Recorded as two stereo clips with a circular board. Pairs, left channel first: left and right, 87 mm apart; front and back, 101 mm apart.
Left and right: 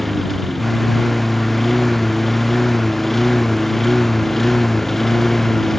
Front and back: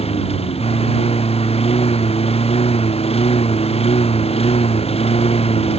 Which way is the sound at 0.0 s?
Straight ahead.